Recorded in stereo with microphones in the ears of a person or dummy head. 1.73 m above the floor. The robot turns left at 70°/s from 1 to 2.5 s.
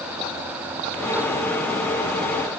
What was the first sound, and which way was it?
Only background noise.